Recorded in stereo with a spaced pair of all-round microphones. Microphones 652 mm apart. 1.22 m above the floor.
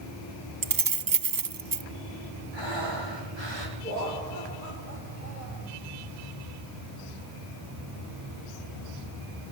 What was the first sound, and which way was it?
Keys jangling, 35° right (ahead or behind).